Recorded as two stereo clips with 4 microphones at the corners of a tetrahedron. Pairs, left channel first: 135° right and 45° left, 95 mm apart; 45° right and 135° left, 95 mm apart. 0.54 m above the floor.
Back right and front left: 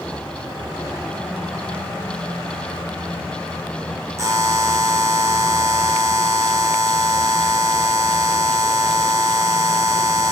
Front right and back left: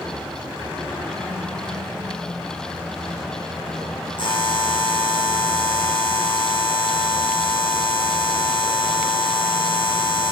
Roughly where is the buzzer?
Ahead.